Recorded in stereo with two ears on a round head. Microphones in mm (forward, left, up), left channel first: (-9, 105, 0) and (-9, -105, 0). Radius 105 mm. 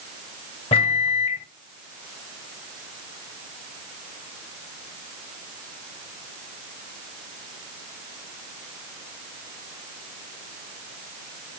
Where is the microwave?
25° left (ahead or behind), 1.8 m.